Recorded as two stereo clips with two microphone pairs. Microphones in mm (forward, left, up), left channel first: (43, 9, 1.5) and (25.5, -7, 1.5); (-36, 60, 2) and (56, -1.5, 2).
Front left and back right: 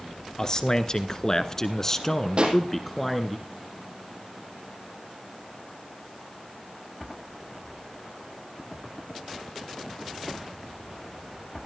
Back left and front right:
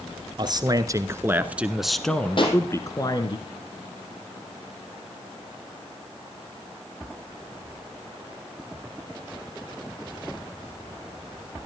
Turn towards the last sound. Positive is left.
turn(degrees=-175)